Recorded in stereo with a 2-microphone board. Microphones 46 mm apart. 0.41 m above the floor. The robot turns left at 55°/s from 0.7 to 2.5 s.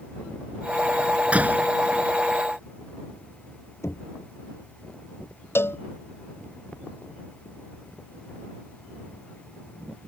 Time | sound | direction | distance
1.3 | a door slam | 25° right (ahead or behind) | ?
3.8 | knocking | 85° left | ?
5.5 | a cowbell | 60° left (ahead or behind) | ?